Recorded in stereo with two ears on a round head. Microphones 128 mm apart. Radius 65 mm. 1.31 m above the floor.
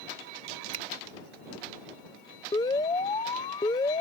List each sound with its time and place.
0.7 s a finger snap: 50° right (ahead or behind)
2.5 s an alarm: 25° left (ahead or behind)